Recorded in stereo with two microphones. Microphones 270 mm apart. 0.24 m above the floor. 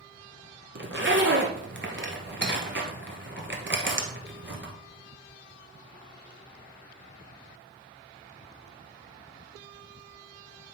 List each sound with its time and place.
0.8 s a zipper: 45° right (ahead or behind), 1.1 m